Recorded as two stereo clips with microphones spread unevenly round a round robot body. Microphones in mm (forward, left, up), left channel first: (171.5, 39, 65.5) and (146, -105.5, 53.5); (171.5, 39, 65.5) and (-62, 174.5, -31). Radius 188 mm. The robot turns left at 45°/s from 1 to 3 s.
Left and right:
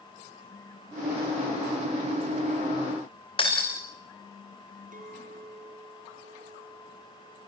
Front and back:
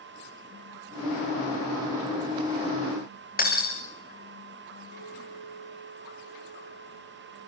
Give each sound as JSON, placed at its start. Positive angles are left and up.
{"t": 3.4, "sound": "breaking glass", "azimuth_deg": 25, "distance_m": 8.0}
{"t": 4.9, "sound": "a clink", "azimuth_deg": -75, "distance_m": 7.5}